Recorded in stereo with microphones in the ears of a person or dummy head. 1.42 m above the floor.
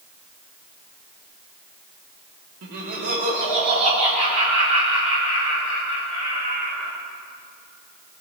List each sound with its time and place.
2.6 s laughter: 55° right (ahead or behind), 1.6 m; by 6.9 s 30° right (ahead or behind), 7 m